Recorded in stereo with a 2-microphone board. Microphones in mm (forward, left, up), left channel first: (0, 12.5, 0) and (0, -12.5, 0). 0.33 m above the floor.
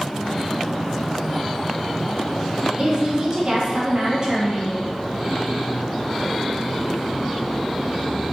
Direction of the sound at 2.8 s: 45° right (ahead or behind).